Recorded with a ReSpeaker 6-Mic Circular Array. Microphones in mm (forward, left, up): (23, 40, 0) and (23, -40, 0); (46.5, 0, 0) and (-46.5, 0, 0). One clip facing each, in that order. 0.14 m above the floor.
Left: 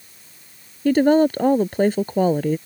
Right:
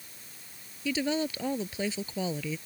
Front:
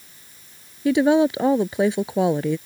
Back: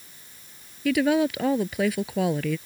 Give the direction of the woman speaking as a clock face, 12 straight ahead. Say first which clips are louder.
Left 15 dB, front 5 dB; 10 o'clock.